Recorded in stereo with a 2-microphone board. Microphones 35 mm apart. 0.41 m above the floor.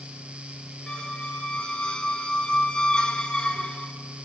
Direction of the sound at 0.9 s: 25° left (ahead or behind).